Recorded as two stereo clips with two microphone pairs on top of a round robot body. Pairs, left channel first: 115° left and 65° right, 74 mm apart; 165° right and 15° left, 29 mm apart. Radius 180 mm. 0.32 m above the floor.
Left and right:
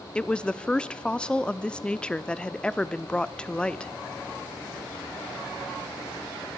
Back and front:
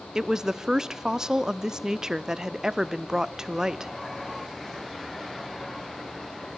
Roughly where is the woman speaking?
Ahead left.